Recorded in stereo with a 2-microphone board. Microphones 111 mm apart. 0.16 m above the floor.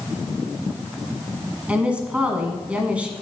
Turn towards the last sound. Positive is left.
turn(degrees=-10)  # may be behind; listen again after turning